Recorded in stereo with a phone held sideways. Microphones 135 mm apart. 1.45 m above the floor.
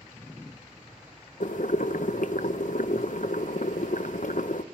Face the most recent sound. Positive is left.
turn(degrees=70)  # may be behind; listen again after turning